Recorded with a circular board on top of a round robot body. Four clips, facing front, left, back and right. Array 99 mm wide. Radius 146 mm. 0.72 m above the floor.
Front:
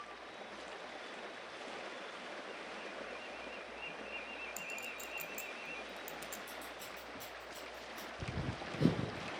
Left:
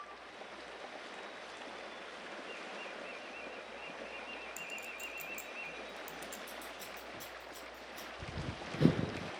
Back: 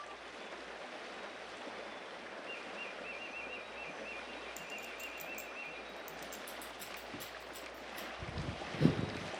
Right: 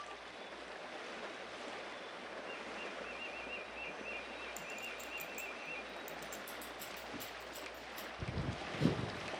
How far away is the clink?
About 1.1 m.